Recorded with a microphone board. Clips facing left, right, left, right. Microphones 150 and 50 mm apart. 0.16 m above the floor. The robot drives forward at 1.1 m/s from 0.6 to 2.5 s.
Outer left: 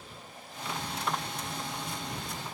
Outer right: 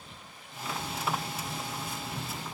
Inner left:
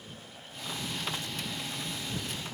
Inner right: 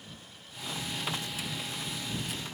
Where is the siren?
No siren in this recording.